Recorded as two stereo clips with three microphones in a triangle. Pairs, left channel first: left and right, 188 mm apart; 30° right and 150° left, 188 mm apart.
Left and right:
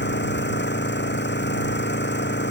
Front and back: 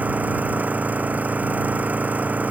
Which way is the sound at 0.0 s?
70° left.